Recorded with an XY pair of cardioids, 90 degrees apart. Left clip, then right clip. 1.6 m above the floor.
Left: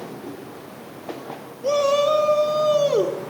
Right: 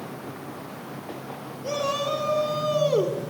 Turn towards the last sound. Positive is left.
turn(degrees=45)